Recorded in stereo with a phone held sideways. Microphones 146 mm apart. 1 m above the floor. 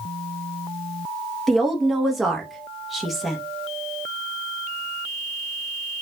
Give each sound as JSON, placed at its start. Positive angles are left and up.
{"t": 1.5, "sound": "a woman speaking", "side_deg": 0, "distance_m": 0.9}